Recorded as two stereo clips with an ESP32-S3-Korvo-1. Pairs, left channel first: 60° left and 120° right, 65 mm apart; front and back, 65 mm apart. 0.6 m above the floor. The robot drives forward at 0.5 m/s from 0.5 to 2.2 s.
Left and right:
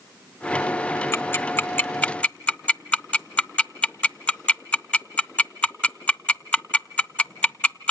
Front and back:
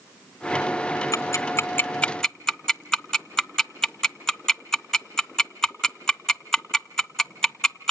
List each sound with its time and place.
1.1 s ticking: 15° left, 0.8 m; by 7.9 s 75° left, 0.5 m